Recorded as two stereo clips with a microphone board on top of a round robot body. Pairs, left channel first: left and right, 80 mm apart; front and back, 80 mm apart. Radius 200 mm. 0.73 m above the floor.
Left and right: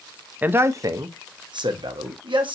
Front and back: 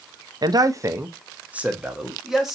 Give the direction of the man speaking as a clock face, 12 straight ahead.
5 o'clock.